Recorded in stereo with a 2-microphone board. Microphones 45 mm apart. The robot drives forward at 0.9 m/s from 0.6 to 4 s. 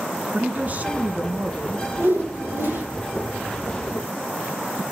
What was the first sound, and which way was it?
A man speaking, 40° right (ahead or behind).